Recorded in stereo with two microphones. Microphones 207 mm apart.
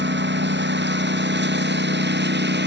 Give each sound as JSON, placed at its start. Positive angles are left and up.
{"t": 0.0, "sound": "a lawn mower", "side_deg": -60}